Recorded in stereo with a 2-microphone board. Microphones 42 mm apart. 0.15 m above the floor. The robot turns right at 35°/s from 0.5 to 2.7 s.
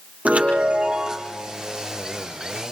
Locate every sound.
0.2 s a chime: 40° right, 5 m; by 1.4 s 10° right, 5 m